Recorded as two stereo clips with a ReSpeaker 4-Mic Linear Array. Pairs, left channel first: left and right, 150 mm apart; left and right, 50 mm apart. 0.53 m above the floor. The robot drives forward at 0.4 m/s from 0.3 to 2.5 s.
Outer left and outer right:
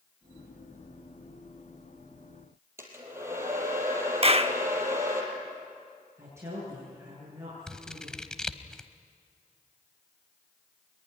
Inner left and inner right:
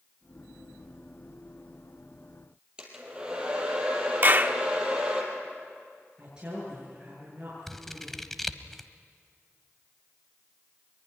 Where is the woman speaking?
20° right (ahead or behind), 8.5 m.